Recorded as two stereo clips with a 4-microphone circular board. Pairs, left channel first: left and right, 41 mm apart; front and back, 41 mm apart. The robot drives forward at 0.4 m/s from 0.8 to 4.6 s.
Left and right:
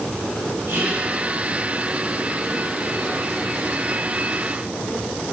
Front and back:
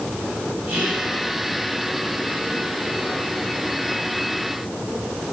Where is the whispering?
130° right, 7 m.